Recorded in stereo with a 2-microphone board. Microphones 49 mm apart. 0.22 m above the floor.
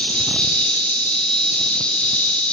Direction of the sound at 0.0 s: 20° left (ahead or behind).